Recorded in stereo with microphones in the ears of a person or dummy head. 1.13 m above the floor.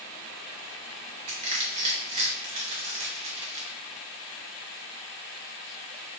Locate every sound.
1.3 s crushing: 35° right (ahead or behind), 1.4 m